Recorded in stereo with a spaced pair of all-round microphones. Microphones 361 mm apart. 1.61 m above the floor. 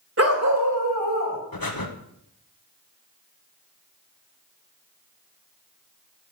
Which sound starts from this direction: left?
Breathing, at 1.5 s.